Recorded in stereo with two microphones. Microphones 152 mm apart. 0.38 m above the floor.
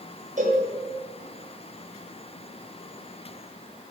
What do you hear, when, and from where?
0.4 s a cowbell: 55° right (ahead or behind), 2.5 m